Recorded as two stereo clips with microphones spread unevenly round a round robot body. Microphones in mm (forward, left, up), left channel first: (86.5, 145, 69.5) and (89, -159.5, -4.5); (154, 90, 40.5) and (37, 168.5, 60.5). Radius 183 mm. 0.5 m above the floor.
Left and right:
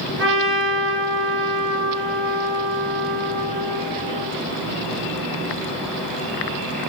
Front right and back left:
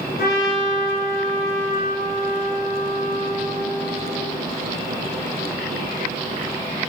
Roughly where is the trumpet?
Ahead right.